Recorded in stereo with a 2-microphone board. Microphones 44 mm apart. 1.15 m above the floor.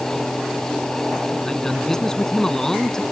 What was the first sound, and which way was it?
A man speaking, 10° left (ahead or behind).